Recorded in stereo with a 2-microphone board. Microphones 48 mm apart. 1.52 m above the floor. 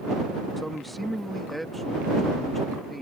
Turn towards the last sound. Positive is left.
turn(degrees=0)  # may be behind; listen again after turning